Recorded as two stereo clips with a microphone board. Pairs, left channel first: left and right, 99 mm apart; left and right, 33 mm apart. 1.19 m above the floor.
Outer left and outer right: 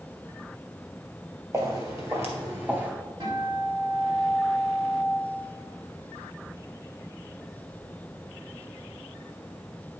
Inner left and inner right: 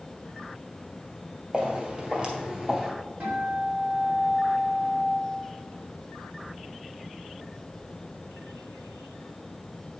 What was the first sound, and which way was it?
Footsteps, 30° right (ahead or behind).